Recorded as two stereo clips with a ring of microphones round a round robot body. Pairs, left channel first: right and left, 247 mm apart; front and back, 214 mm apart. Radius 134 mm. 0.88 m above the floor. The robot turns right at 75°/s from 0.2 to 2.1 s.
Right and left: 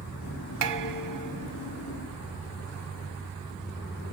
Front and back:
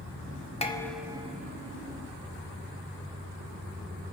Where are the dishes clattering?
65° left, 1.3 m; by 2.0 s 170° left, 1.3 m.